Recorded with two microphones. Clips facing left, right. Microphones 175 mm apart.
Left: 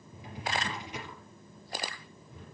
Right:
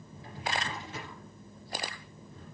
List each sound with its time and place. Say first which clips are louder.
0.1 s a drawer: even; 15° left (ahead or behind), 4 m